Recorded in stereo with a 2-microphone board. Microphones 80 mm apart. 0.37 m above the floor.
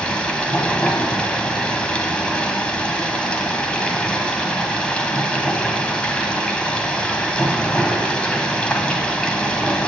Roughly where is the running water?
Centre.